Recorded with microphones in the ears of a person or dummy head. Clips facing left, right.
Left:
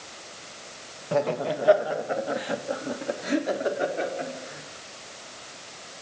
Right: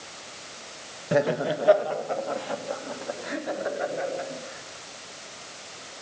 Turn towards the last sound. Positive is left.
turn(degrees=50)  # may be behind; listen again after turning